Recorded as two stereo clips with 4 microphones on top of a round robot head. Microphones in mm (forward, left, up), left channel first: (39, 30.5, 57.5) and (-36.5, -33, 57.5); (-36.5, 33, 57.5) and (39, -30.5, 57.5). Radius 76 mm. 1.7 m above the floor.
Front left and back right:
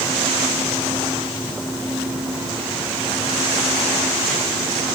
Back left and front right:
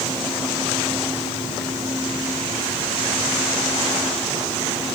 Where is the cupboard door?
I don't hear a cupboard door.